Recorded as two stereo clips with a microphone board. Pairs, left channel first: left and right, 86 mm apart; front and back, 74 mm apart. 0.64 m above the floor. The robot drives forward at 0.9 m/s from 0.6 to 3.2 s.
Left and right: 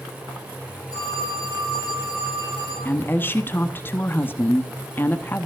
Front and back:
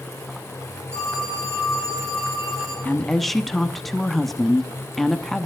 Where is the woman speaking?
45° left, 0.9 m; by 5.5 s 85° left, 0.9 m.